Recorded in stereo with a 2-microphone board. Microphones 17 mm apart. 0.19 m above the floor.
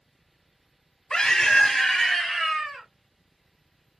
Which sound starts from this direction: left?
A scream, at 1.1 s.